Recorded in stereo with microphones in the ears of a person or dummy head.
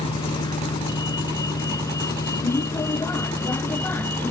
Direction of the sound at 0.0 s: 30° left (ahead or behind).